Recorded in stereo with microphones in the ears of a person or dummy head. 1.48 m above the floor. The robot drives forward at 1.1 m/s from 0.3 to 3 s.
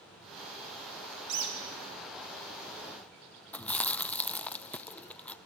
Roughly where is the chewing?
Centre.